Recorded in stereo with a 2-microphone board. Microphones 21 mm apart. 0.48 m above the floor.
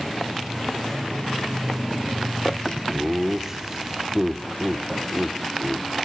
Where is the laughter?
25° right (ahead or behind), 1.0 m.